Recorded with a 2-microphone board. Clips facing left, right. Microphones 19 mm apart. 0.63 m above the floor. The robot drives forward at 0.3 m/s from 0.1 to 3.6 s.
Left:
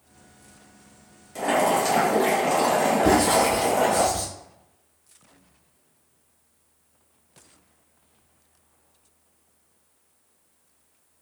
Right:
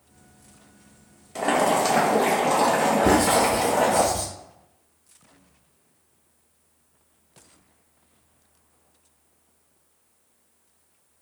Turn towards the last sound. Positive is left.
turn(degrees=20)  # may be behind; listen again after turning